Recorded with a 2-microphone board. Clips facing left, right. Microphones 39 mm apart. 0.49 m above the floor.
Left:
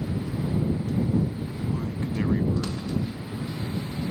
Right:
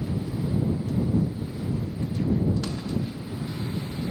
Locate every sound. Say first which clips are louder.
1.6 s a man speaking: left 1 dB; 75° left (ahead or behind)